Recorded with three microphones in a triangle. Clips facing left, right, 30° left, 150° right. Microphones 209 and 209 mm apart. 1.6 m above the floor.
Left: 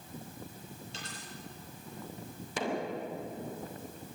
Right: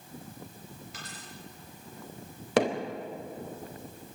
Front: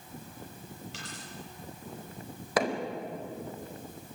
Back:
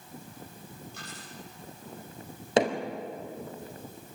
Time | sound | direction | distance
0.9 | a dropped coin | 30° left | 8 m
2.6 | hammering | 85° right | 4 m